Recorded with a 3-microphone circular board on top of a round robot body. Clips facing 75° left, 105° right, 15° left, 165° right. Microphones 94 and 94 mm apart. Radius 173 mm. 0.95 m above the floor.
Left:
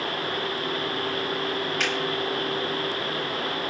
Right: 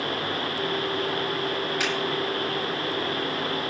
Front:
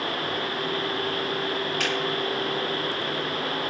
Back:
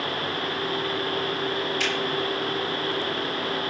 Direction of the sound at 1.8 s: 25° right.